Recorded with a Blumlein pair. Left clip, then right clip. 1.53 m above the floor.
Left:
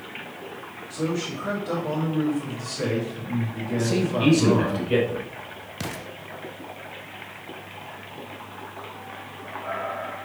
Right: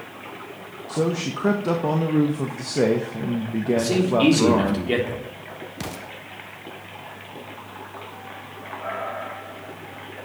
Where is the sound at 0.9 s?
40° right, 1.4 m.